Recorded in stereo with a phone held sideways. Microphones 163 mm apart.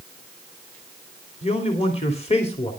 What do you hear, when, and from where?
1.4 s a man speaking: 40° left (ahead or behind), 2.5 m